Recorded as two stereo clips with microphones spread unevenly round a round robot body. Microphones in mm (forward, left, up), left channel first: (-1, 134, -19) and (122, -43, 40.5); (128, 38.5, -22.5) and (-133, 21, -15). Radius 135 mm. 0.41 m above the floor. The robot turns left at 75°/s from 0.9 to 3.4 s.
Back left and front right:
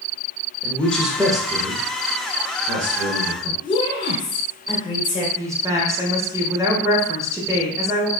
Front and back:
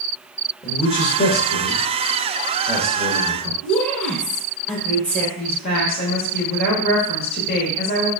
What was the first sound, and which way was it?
A man speaking, 65° left.